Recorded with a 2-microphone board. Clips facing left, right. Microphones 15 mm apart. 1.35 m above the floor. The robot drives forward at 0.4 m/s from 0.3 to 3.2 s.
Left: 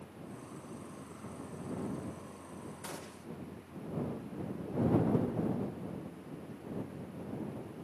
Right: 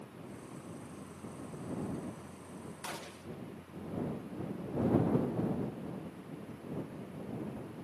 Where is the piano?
I don't hear a piano.